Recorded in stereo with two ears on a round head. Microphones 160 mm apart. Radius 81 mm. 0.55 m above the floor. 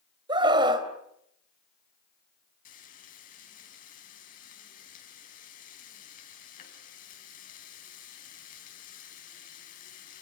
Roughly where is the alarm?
No alarm in this recording.